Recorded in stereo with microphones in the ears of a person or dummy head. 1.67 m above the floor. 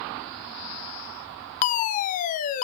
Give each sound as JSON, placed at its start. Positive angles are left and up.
{"t": 1.6, "sound": "a fire alarm", "side_deg": 45, "distance_m": 0.9}